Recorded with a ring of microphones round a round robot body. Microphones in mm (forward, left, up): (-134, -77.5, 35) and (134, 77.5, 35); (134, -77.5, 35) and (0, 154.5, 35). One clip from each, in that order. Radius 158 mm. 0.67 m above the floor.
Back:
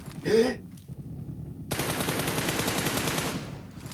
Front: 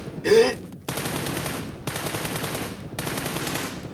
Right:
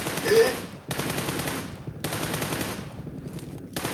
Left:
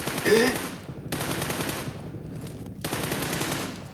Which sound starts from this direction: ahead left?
A gasp, at 0.2 s.